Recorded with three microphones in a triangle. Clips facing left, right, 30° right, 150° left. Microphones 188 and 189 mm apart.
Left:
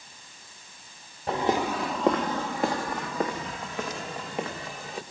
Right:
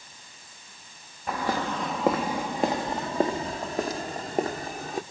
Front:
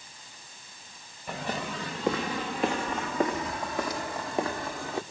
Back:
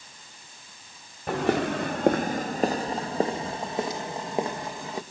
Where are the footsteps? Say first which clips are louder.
Left 3 dB, back 10 dB; 150° left, 0.9 m; by 5.0 s 135° right, 3 m.